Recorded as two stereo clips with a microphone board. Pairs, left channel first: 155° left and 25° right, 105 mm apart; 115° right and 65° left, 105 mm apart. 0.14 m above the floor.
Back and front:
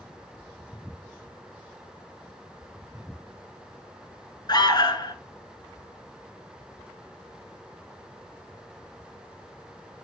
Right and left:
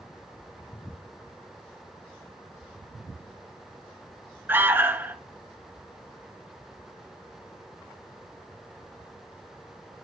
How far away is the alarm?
About 1.2 m.